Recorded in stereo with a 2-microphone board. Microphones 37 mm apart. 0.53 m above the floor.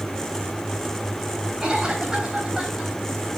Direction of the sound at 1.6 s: 20° right (ahead or behind).